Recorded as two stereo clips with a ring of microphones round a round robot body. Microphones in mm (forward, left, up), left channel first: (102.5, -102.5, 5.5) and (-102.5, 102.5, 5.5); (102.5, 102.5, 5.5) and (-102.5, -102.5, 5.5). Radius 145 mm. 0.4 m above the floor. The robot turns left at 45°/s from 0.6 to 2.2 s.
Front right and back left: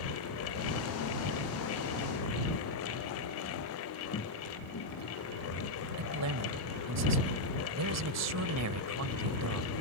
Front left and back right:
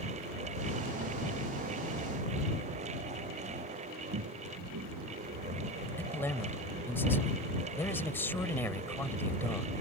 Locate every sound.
4.1 s footsteps: 105° right; by 7.0 s 80° right
6.0 s a man speaking: 125° left